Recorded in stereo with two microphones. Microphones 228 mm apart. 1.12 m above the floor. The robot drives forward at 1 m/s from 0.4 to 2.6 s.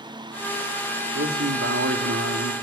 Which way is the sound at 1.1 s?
65° right (ahead or behind).